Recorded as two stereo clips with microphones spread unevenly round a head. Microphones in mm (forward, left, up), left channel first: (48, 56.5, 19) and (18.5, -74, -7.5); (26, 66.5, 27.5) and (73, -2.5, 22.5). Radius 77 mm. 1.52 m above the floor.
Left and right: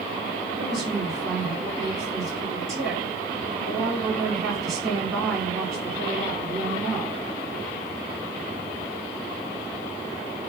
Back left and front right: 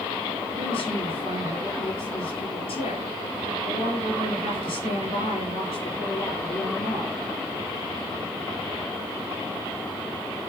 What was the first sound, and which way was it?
A woman speaking, 170° left.